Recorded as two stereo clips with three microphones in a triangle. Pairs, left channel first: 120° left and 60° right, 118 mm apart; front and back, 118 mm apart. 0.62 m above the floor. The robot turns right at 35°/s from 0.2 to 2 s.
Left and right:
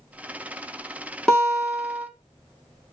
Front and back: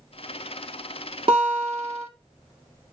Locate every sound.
1.3 s a guitar: 160° right, 1.6 m; by 2.1 s 135° right, 1.6 m